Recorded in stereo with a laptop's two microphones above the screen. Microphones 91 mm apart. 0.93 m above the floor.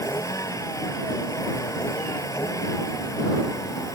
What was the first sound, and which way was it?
A vehicle, 35° left (ahead or behind).